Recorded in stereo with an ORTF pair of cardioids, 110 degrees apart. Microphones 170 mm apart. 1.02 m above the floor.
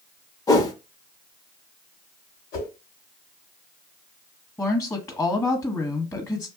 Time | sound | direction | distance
0.5 | a whoosh | 20° left | 0.7 m
2.5 | a whoosh | 65° left | 1.3 m
4.6 | a woman speaking | 15° left | 1.2 m